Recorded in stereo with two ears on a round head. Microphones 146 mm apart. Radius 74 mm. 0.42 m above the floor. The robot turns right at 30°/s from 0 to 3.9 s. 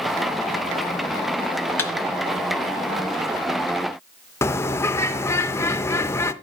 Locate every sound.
1.8 s a thud: 15° left (ahead or behind), 1.2 m
4.4 s a bird: 15° left (ahead or behind), 0.5 m